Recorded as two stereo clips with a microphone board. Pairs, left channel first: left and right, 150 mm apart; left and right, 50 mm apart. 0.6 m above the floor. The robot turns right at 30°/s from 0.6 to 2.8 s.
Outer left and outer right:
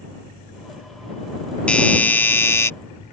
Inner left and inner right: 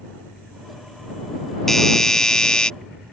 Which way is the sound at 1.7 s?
10° left (ahead or behind).